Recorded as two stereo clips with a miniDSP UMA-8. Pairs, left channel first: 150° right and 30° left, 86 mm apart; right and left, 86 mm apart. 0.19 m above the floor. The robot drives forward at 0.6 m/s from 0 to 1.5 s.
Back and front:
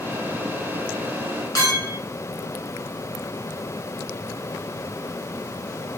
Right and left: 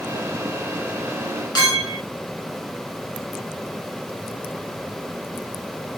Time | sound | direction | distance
1.6 | a clink | 115° right | 1.4 m